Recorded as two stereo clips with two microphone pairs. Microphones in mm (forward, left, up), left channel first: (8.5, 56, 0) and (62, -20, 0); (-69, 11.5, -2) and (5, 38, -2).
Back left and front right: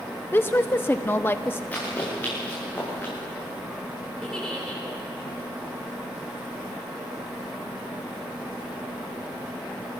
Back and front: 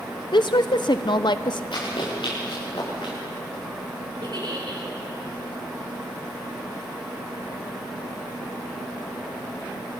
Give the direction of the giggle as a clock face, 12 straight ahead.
11 o'clock.